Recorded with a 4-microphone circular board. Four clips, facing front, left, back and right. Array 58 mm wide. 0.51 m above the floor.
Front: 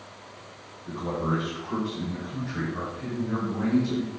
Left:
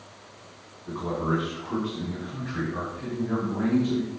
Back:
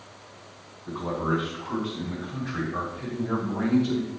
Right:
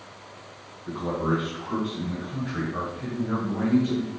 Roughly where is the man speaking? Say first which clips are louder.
Right 1 dB, back 1 dB; behind right.